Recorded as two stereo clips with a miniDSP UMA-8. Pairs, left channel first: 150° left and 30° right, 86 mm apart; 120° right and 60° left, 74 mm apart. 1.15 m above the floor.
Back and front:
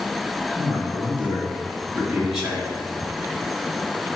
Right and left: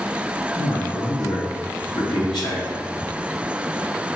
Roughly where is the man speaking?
Behind right.